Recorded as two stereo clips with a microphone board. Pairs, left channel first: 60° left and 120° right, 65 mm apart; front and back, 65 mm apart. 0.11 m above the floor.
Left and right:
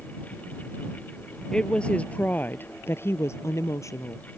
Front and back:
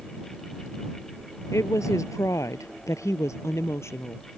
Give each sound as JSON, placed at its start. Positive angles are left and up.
{"t": 1.5, "sound": "a woman speaking", "azimuth_deg": -15}